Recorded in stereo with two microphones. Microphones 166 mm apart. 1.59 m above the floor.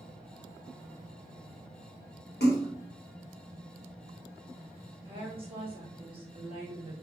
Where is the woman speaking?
35° right (ahead or behind), 1.2 m.